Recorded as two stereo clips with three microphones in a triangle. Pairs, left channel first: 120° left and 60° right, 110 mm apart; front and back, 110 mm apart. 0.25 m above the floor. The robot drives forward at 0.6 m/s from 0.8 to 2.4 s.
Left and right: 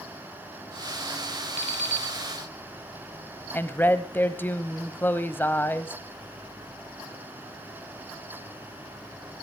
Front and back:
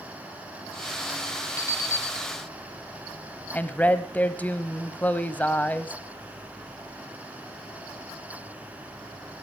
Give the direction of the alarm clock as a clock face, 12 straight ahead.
2 o'clock.